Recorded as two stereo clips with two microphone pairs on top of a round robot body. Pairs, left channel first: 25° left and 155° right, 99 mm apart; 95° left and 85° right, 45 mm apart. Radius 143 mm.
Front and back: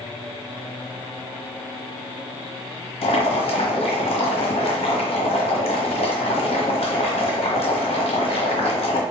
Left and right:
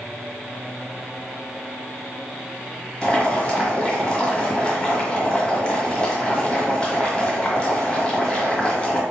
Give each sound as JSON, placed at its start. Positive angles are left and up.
{"t": 3.0, "sound": "boiling", "azimuth_deg": 25, "distance_m": 1.3}